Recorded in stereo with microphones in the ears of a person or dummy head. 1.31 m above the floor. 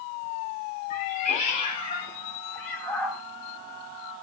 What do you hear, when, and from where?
0.9 s a cat meowing: 45° left (ahead or behind), 1.3 m; by 3.2 s 5° right (ahead or behind), 1.3 m